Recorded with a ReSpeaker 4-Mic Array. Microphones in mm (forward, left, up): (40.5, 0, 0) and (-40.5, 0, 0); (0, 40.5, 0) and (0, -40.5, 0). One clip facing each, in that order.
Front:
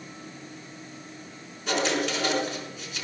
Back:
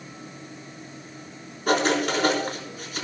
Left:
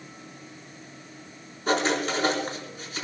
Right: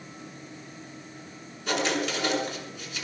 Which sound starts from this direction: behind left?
Writing, at 1.7 s.